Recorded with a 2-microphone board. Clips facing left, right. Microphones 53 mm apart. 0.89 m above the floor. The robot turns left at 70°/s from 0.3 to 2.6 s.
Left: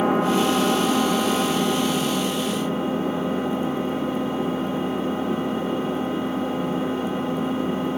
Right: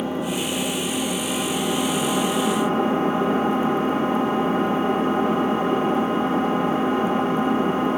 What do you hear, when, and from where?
0.0 s an engine running: 100° left, 1.5 m; by 8.0 s 60° right, 1.5 m